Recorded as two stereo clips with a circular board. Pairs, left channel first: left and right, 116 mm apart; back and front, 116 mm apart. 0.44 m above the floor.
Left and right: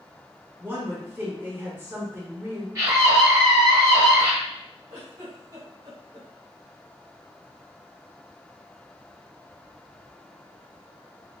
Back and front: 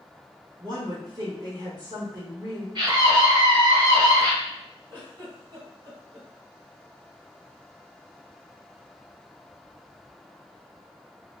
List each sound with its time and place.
0.6 s a woman speaking: 30° right, 1.3 m
2.8 s a scream: 35° right, 2.0 m
4.9 s a giggle: 40° right, 1.9 m